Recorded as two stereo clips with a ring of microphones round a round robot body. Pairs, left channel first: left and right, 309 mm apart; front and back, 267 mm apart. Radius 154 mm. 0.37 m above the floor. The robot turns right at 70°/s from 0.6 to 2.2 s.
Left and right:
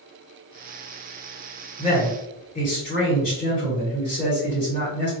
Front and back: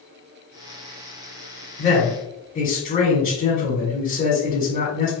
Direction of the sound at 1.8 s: 15° left.